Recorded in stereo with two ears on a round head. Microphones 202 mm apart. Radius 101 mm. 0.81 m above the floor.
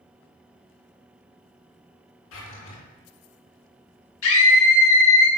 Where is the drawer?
65° left (ahead or behind), 3 m.